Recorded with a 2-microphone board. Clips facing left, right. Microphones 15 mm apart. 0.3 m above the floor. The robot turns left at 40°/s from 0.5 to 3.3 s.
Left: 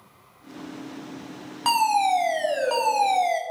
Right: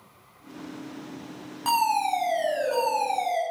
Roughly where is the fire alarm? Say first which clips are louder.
Left 3 dB; behind left.